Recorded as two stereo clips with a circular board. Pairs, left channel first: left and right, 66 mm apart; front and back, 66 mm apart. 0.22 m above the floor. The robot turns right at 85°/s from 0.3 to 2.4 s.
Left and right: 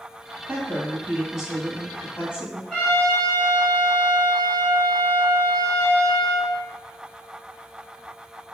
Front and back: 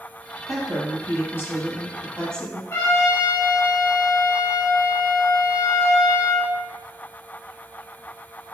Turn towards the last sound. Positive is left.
turn(degrees=25)